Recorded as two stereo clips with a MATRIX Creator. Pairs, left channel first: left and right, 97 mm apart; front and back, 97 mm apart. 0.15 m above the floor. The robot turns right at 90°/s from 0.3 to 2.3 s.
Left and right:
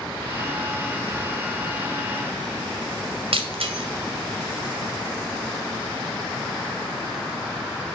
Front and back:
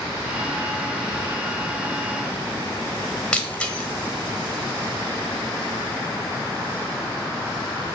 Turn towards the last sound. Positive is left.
turn(degrees=-80)